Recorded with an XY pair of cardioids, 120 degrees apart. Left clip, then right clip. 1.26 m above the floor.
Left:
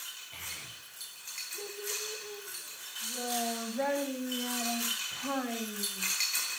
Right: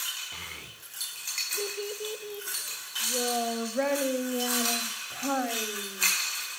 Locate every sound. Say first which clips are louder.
0.3 s a child speaking: right 2 dB; 55° right, 3.5 m; by 6.1 s 60° right, 6.5 m